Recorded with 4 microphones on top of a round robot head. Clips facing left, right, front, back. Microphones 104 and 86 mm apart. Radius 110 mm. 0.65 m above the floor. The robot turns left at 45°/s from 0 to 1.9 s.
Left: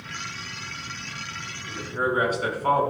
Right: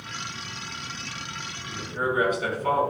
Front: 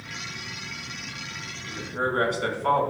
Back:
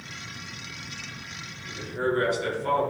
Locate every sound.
1.7 s a man speaking: 50° left, 5 m; by 2.8 s 35° left, 5 m